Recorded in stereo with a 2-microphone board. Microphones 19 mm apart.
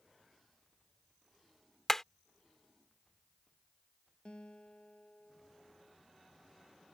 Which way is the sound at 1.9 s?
20° left (ahead or behind).